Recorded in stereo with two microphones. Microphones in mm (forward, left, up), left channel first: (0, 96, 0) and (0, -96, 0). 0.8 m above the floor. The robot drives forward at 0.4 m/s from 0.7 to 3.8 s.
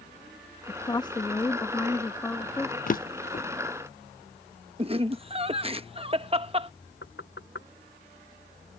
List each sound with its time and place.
0.7 s a woman speaking: 25° left (ahead or behind); by 2.8 s 10° left (ahead or behind)
2.9 s a drawer: 45° left (ahead or behind)
4.8 s laughter: 30° right (ahead or behind)
7.0 s knocking: 80° left